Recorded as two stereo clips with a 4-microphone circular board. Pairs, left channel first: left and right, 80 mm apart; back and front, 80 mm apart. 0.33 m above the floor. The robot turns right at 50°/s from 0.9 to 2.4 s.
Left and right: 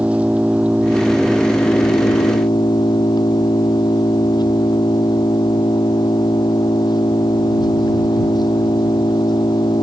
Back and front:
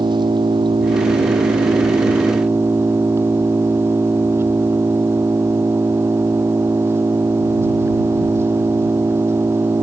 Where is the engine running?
15° right; by 9.8 s 60° left.